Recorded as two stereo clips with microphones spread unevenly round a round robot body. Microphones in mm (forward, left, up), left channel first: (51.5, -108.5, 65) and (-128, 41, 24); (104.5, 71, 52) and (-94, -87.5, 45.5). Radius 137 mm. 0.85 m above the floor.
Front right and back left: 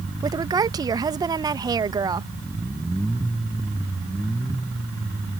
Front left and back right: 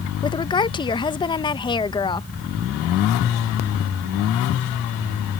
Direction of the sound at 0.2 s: 100° left.